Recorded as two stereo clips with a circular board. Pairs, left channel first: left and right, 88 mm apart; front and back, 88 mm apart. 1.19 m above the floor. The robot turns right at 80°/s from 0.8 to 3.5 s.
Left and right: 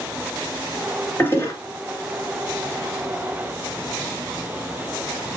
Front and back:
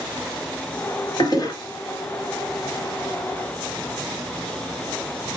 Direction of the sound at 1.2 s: 20° left.